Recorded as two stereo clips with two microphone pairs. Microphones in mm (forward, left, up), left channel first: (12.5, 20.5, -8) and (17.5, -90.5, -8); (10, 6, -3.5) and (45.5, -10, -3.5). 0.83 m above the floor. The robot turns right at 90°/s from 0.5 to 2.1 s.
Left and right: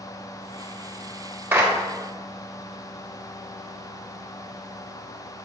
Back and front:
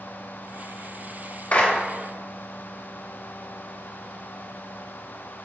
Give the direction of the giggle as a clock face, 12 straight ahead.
I don't hear a giggle.